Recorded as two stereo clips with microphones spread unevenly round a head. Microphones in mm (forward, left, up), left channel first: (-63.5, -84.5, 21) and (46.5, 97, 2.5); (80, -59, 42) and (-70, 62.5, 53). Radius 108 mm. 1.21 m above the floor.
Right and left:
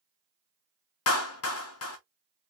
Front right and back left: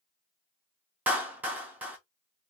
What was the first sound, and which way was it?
A clap, 140° right.